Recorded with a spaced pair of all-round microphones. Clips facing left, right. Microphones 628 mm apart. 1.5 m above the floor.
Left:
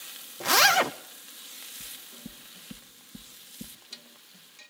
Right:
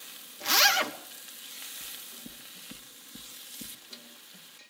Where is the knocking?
45° left (ahead or behind), 1.2 m.